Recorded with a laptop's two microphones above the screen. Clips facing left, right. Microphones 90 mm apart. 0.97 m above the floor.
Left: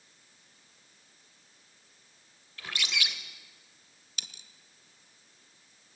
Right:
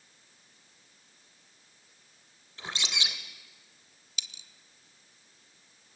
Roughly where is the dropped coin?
Left.